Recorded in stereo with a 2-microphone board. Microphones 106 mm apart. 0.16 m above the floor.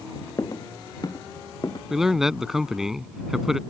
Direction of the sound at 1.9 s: 5° right (ahead or behind).